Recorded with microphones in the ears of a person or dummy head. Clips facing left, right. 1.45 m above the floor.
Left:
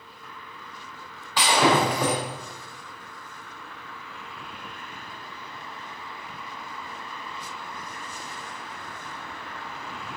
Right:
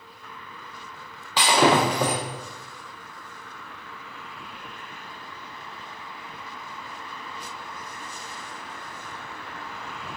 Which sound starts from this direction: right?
Breaking glass, at 1.4 s.